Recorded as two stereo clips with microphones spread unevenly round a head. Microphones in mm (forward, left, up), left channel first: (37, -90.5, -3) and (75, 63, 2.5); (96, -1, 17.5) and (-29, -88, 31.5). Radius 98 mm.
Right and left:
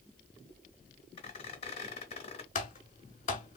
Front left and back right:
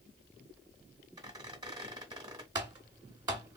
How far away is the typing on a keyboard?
About 1.1 m.